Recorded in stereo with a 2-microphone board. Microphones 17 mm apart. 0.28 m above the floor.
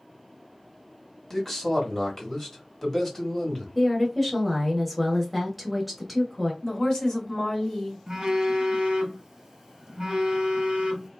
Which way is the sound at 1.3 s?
25° left (ahead or behind).